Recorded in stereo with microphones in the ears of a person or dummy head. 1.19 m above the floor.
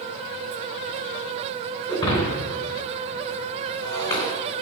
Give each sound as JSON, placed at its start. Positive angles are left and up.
{"t": 1.9, "sound": "breaking glass", "side_deg": 30, "distance_m": 3.0}